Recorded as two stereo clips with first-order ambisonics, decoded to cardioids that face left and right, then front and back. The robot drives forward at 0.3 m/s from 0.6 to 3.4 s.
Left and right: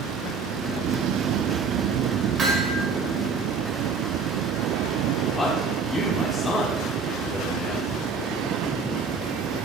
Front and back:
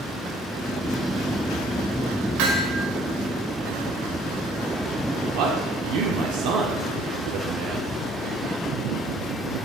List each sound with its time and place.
2.4 s hammering: 165° right, 2.5 m
5.3 s a man speaking: 170° left, 1.5 m